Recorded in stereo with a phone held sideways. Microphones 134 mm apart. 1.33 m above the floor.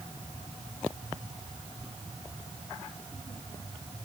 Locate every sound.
Only background noise.